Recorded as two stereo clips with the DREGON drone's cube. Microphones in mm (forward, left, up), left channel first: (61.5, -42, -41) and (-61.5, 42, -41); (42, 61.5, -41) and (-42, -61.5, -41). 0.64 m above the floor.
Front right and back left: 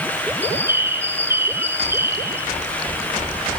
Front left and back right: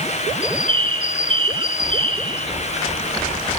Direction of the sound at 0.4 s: 150° right.